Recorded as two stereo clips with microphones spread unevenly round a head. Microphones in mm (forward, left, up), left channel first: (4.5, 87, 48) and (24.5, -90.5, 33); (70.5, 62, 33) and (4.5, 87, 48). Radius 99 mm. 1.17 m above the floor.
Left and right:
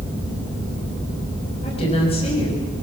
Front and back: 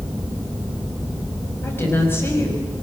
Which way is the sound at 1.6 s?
35° left.